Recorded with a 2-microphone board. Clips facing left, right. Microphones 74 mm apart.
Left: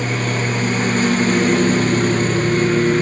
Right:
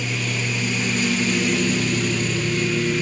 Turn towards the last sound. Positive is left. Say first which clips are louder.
# left 6 dB
turn(degrees=45)  # may be behind; listen again after turning